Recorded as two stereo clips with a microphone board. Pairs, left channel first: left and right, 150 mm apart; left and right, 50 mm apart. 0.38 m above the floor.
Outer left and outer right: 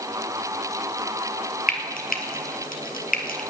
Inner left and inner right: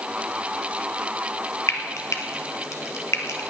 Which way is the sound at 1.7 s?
75° left (ahead or behind).